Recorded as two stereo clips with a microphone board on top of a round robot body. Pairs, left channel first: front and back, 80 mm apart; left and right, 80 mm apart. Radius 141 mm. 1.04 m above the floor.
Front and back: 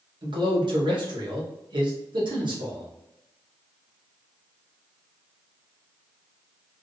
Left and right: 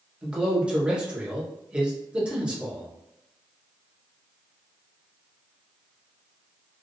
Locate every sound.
0.2 s a man speaking: 170° right, 1.5 m